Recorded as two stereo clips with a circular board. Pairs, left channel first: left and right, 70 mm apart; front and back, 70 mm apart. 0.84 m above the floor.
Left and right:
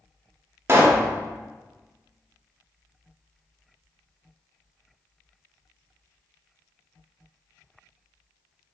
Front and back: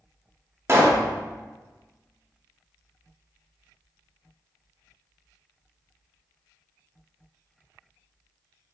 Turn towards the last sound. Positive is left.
turn(degrees=-135)